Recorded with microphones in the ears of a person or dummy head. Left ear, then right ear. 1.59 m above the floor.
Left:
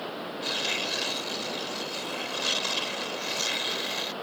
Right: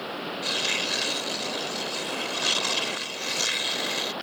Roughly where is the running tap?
I don't hear a running tap.